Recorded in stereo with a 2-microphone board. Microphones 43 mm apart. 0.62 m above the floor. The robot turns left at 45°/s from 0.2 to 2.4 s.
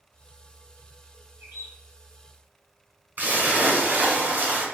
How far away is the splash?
About 1.5 m.